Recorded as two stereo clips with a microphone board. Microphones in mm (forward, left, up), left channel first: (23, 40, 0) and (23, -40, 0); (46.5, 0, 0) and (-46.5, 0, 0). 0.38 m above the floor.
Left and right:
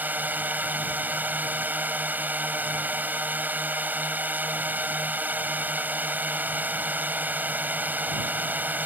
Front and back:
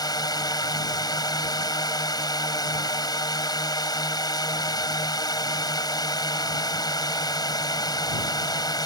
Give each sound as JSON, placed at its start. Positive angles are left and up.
{"t": 0.0, "sound": "a drone", "azimuth_deg": -25}